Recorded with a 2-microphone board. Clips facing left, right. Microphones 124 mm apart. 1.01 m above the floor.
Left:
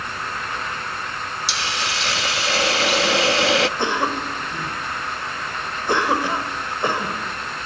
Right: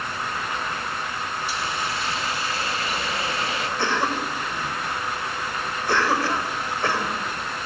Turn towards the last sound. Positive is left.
turn(degrees=20)  # may be behind; listen again after turning